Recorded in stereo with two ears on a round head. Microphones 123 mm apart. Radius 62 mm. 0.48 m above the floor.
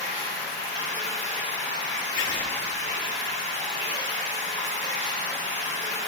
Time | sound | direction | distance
0.0 | running water | 50° right (ahead or behind) | 3 m
2.2 | writing | 40° left (ahead or behind) | 1.4 m